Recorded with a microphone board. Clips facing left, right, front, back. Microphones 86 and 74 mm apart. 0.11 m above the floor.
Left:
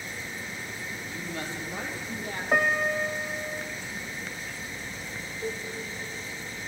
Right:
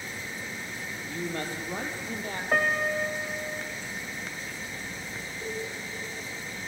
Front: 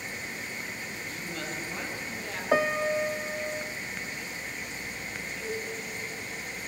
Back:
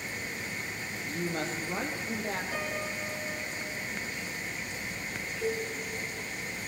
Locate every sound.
1.1 s a woman speaking: 130° right, 3.5 m
2.5 s a piano: 5° left, 1.0 m
5.4 s a cowbell: 150° right, 5.5 m